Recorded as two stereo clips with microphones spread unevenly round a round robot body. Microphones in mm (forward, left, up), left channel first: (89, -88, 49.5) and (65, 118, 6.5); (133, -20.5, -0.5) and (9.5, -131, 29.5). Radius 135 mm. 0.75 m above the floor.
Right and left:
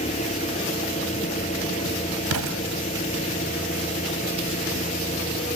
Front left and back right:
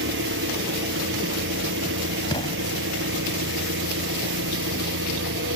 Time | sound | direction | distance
0.0 | an engine running | 150° right | ?
2.3 | an explosion | 115° left | ?